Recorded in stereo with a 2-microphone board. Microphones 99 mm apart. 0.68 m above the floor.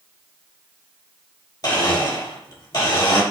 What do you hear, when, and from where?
1.6 s a blender: 40° left (ahead or behind), 0.7 m